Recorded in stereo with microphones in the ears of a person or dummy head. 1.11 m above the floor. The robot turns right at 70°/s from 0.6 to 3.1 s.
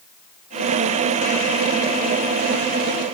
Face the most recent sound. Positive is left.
No sound to turn to.